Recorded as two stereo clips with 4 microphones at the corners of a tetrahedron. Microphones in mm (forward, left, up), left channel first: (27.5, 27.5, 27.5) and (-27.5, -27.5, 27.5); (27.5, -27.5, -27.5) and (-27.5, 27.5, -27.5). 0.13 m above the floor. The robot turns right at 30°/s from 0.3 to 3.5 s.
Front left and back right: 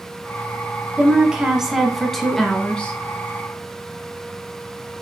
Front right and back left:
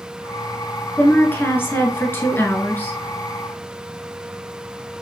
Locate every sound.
1.0 s a woman speaking: 75° right, 1.1 m; by 2.9 s 15° right, 1.1 m